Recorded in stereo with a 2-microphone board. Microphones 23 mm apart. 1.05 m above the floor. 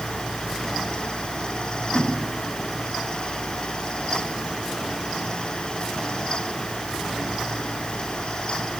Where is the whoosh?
25° right (ahead or behind), 6.5 m.